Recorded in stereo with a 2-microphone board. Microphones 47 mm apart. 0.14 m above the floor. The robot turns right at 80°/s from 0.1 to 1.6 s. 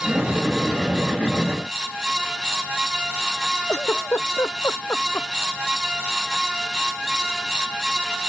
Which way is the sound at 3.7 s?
70° left (ahead or behind).